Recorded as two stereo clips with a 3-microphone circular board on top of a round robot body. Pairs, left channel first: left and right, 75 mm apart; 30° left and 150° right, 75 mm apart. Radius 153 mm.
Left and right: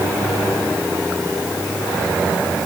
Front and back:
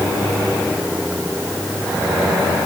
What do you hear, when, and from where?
Only background noise.